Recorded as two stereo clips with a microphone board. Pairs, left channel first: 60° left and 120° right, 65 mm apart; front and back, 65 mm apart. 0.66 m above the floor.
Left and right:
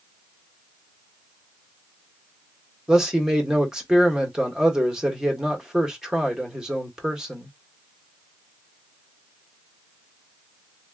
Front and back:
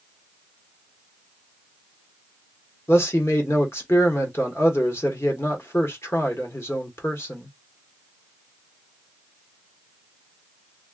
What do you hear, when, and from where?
2.9 s a man speaking: 40° right, 1.5 m